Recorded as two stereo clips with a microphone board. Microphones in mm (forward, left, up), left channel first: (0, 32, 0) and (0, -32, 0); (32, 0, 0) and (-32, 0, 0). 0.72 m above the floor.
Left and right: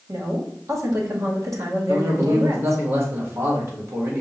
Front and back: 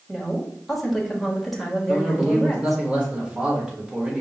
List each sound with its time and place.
0.1 s a woman speaking: 90° right, 1.3 m
1.9 s a man speaking: 110° right, 1.5 m